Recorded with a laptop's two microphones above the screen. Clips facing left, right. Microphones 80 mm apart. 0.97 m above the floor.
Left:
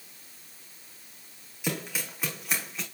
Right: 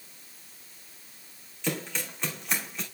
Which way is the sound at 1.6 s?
10° left (ahead or behind).